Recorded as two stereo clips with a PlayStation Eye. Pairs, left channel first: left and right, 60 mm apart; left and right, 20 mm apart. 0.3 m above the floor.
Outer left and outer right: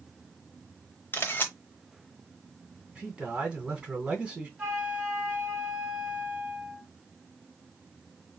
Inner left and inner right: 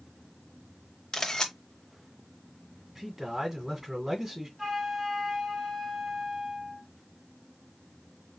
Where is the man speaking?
20° right (ahead or behind), 2 m.